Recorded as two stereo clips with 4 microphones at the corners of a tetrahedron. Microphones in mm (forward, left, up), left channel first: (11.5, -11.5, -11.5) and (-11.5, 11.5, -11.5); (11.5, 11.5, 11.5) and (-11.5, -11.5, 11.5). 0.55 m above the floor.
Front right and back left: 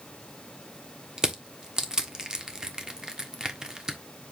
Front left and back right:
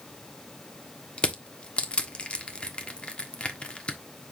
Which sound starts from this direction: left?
Crushing, at 1.2 s.